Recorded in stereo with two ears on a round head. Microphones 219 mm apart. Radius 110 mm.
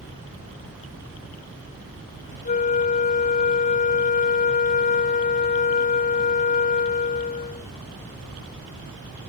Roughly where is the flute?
Left.